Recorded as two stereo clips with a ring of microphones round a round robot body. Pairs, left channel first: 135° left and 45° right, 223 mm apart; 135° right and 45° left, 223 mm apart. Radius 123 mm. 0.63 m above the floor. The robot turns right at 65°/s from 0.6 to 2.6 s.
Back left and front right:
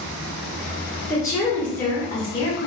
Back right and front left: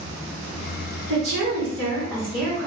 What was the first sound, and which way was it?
A woman speaking, 50° left.